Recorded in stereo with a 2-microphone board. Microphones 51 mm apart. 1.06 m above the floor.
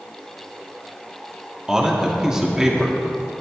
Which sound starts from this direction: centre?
A man speaking, at 1.7 s.